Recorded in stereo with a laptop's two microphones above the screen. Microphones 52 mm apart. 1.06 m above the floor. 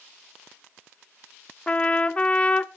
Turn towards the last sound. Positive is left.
turn(degrees=20)  # may be behind; listen again after turning